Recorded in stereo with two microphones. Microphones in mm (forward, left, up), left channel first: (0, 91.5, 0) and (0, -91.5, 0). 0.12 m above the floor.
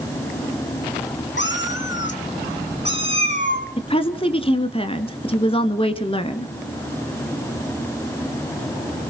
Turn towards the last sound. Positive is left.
turn(degrees=30)  # may be behind; listen again after turning